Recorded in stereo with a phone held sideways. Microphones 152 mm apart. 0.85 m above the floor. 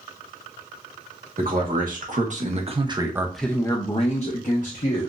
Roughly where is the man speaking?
Right.